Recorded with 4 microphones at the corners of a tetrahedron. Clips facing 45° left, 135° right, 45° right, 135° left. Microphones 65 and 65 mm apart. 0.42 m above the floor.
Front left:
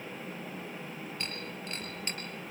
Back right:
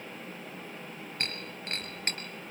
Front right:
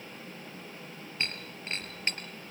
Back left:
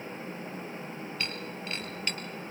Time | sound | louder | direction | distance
1.2 | breaking glass | back right 1 dB, front right 2 dB | 105° right | 3.5 m